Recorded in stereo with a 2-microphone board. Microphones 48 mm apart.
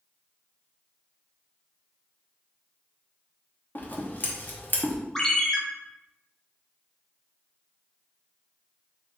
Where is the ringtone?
10° left (ahead or behind), 0.7 m.